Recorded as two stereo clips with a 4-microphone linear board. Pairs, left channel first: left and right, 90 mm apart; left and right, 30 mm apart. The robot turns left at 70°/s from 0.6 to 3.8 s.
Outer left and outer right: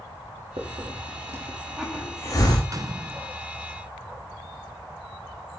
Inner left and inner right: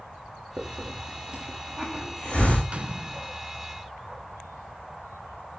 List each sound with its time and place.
0.6 s a hiss: 85° right, 5.5 m; by 2.6 s 50° left (ahead or behind), 5.5 m
2.7 s a gunshot: 60° right, 0.6 m; by 3.4 s 105° right, 0.6 m